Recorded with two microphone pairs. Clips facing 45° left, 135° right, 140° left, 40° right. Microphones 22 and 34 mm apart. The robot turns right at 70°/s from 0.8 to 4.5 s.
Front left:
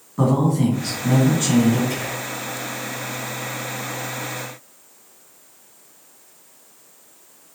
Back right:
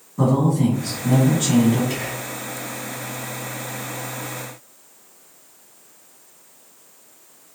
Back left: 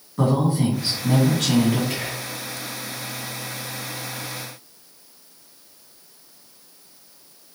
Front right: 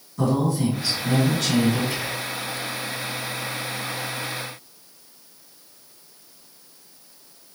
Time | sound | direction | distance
0.2 | a man speaking | 80° left | 1.7 m
1.9 | whispering | straight behind | 2 m